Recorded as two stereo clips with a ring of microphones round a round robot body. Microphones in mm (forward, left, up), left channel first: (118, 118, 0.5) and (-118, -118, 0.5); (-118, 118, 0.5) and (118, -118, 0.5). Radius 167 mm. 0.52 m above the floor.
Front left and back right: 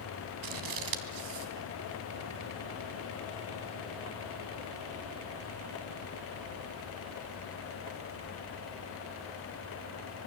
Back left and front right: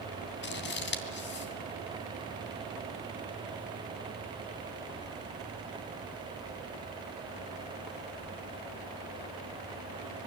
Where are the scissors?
165° right, 2.5 m.